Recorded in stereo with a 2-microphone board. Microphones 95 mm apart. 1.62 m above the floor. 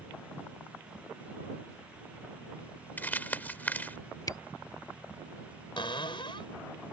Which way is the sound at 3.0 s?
20° left (ahead or behind).